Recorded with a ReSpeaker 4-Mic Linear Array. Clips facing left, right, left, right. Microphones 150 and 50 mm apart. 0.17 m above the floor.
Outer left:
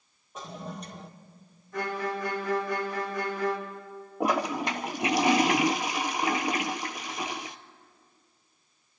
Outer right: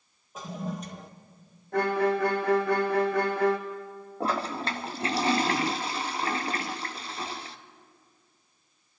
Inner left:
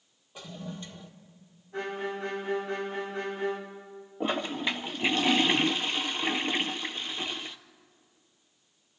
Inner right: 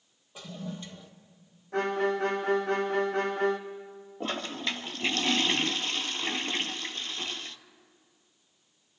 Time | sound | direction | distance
0.3 | a toilet flushing | centre (ahead or behind) | 1.4 m
1.7 | a violin | 65° right (ahead or behind) | 1.6 m
4.2 | a toilet flushing | 15° left (ahead or behind) | 0.6 m